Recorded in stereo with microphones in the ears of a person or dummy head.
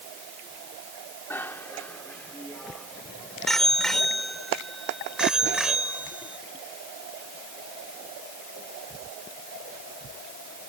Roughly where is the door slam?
I don't hear a door slam.